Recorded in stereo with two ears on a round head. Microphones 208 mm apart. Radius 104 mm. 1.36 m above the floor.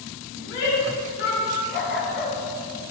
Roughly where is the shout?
Left.